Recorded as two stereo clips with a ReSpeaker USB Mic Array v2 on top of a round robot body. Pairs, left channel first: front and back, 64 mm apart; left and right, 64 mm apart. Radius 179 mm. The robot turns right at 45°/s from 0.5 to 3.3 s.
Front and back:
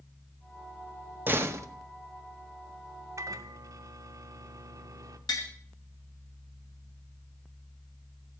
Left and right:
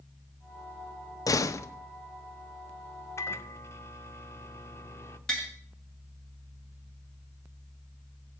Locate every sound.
1.3 s a door slam: 120° left, 0.9 m; by 1.7 s 135° left, 0.9 m
3.2 s a microwave: 135° left, 0.6 m; by 5.2 s 145° left, 0.6 m
5.3 s tapping: 15° left, 1.7 m